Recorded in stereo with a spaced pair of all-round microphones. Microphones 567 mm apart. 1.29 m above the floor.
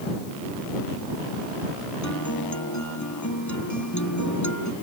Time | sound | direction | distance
2.0 | a guitar | 30° left (ahead or behind) | ?